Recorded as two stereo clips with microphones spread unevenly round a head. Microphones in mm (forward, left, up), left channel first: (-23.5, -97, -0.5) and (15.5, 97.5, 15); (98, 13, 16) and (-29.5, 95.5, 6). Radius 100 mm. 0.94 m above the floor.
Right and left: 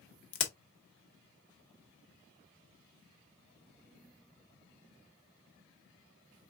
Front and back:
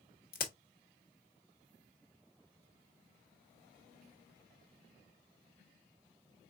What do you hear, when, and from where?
0.3 s a crack: 80° right, 1.0 m